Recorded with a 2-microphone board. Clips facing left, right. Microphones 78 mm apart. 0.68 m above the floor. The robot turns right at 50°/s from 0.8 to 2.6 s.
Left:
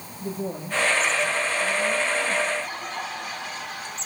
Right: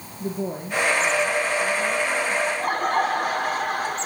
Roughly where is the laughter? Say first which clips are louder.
Right 6 dB; right.